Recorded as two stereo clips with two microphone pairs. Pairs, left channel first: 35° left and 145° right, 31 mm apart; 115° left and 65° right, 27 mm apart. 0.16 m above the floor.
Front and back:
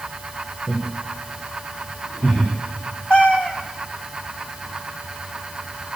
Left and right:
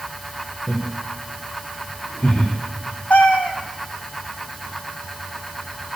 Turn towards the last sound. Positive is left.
turn(degrees=80)